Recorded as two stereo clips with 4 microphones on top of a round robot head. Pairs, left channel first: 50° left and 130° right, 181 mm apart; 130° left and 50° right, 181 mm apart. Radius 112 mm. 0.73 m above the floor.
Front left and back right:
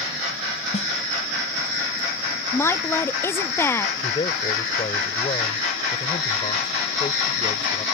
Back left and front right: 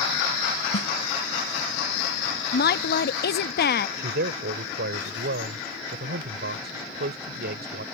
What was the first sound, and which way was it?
A snare drum, 105° left.